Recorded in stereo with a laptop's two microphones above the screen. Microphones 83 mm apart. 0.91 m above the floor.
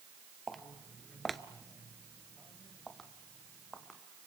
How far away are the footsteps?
About 1.2 m.